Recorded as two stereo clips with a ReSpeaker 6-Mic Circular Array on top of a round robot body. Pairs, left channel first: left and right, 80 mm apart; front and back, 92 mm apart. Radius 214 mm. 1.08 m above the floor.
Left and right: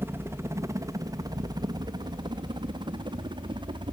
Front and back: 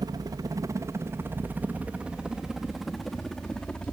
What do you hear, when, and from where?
0.0 s a helicopter: 145° right; by 3.9 s 80° right